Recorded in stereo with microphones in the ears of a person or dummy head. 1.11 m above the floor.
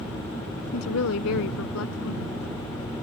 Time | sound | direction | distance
0.7 | a woman speaking | 85° left | ?